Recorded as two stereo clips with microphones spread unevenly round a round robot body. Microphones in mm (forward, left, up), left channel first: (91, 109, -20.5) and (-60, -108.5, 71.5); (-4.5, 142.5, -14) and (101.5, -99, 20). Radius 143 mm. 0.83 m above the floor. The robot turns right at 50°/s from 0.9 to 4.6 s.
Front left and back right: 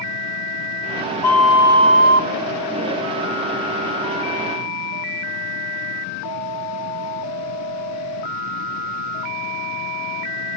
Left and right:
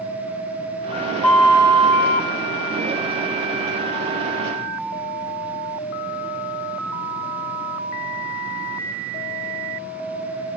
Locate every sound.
1.2 s a flute: 130° left, 0.8 m; by 2.3 s 175° right, 0.8 m